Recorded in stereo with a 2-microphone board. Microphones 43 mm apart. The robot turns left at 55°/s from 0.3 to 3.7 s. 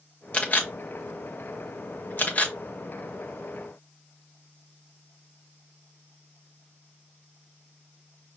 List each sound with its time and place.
0.3 s a camera shutter: 25° left (ahead or behind), 0.9 m; by 2.5 s 30° left (ahead or behind), 0.9 m